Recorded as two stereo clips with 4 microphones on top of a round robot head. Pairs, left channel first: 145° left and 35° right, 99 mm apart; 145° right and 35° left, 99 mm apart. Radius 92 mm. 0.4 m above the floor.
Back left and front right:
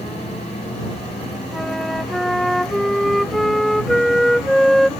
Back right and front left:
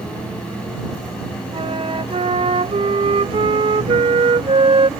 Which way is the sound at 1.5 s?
55° left.